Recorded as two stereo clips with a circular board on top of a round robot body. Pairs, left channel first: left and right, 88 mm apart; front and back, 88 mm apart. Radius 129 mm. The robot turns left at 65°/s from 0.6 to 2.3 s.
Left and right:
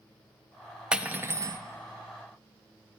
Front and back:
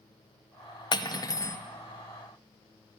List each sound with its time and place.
0.9 s cutlery clinking: 10° right, 0.5 m; by 1.6 s 55° right, 0.5 m